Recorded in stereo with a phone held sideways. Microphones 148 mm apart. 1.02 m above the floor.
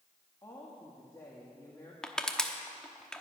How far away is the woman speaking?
About 1.5 m.